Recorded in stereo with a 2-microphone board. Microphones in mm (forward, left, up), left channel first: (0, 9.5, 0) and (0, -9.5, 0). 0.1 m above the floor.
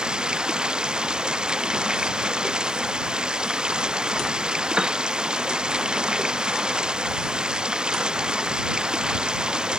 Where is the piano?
45° right (ahead or behind).